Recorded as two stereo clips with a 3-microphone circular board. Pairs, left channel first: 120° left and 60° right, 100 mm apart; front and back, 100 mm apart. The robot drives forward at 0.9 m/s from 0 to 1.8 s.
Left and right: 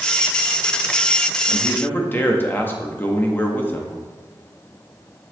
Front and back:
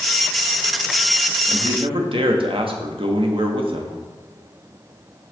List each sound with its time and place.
1.5 s a man speaking: 170° right, 1.3 m; by 4.0 s 175° right, 1.5 m